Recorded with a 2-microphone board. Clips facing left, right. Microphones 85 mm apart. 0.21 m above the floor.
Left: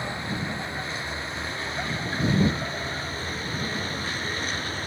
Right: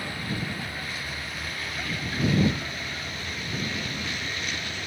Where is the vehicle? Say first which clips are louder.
Left 2 dB; 25° left (ahead or behind); by 4.9 s 35° left (ahead or behind).